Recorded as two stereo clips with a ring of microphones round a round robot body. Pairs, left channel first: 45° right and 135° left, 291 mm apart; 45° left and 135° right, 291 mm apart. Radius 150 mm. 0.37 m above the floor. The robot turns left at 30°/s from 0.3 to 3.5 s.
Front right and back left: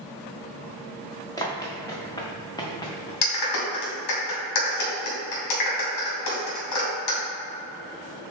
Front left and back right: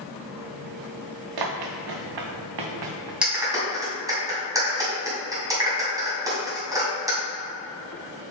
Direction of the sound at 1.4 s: 125° right.